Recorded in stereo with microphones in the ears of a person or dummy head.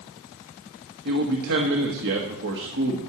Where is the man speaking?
60° right (ahead or behind), 1.4 m.